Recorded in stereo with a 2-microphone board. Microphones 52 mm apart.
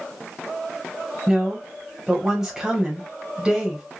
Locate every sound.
1.3 s a woman speaking: 10° right (ahead or behind), 1.8 m